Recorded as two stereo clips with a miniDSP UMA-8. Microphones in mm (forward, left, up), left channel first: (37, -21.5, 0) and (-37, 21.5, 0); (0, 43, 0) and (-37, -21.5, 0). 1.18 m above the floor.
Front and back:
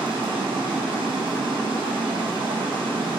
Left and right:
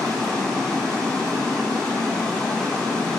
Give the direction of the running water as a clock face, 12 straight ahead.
7 o'clock.